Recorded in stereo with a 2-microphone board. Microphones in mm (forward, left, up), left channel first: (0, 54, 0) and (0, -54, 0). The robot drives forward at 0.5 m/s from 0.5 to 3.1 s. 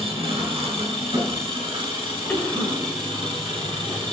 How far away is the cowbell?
No cowbell in this recording.